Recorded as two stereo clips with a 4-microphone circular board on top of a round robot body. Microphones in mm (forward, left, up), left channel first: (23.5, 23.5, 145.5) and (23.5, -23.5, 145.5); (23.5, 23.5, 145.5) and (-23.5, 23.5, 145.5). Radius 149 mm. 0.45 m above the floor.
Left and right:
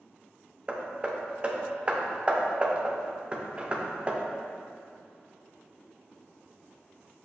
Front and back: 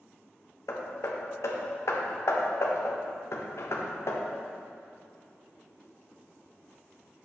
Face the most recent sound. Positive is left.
turn(degrees=-25)